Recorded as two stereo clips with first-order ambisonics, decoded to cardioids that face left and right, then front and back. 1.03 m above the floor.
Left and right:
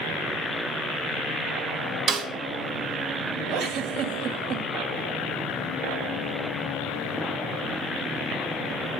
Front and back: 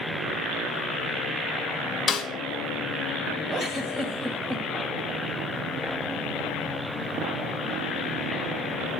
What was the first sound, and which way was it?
A snare drum, 65° right.